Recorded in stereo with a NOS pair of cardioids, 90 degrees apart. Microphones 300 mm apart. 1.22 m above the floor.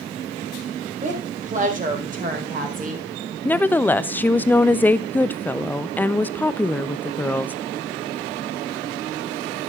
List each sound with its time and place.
1.0 s a woman speaking: 25° right, 4 m
3.5 s a woman speaking: 5° left, 0.7 m